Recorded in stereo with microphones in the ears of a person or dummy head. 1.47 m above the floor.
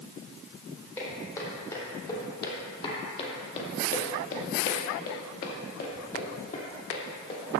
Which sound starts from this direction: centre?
Footsteps, at 1.0 s.